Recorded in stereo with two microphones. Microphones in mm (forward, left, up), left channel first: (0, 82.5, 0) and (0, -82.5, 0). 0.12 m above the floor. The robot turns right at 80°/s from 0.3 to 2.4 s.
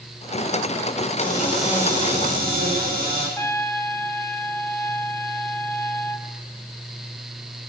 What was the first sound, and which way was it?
A cupboard door, 145° left.